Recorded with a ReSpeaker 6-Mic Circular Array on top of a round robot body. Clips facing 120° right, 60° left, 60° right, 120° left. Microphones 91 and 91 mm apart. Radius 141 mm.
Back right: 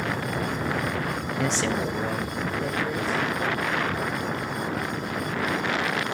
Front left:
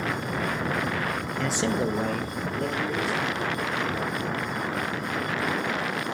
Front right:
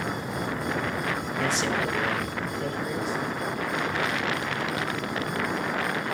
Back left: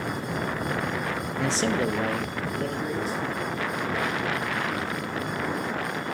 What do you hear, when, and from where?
1.4 s a man speaking: 165° right, 0.6 m; by 3.5 s 70° left, 3 m